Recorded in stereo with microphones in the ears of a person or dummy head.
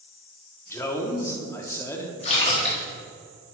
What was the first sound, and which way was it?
A man speaking, 15° left (ahead or behind).